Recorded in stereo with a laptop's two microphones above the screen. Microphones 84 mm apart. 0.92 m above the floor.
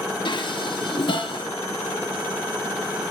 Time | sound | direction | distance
0.2 | dishes clattering | 70° left (ahead or behind) | 0.9 m